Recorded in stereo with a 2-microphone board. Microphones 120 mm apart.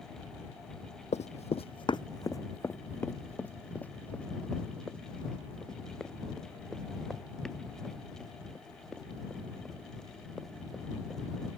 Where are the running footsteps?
70° left (ahead or behind); by 11.5 s centre (ahead or behind).